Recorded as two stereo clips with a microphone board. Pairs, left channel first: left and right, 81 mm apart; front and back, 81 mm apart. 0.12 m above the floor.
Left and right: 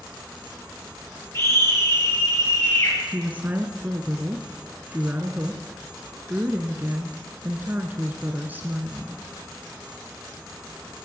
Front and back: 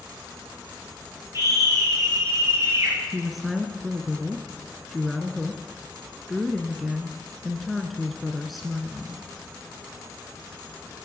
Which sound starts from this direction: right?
A woman speaking, at 3.1 s.